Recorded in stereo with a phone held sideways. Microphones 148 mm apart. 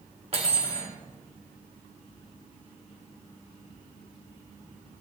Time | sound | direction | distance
0.3 | cutlery clinking | 45° right (ahead or behind) | 1.8 m